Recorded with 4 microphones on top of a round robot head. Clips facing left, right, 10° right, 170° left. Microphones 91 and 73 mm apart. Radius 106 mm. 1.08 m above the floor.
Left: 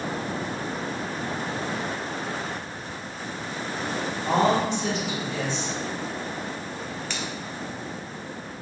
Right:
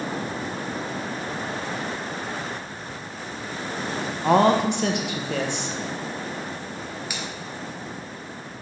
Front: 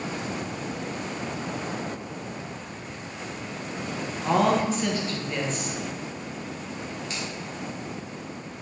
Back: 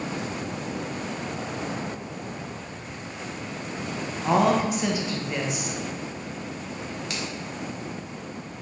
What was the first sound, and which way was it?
A woman speaking, 110° right.